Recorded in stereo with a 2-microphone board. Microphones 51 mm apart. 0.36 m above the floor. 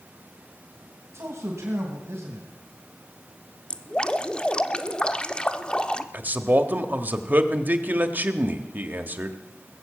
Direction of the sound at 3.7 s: 20° left (ahead or behind).